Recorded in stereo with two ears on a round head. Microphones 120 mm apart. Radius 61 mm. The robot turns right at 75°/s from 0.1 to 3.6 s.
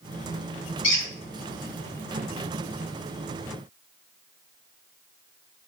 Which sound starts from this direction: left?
A squeak, at 0.8 s.